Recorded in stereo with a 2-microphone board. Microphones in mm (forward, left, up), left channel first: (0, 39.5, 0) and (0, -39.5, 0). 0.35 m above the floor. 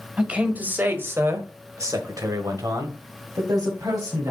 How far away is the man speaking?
About 1.8 m.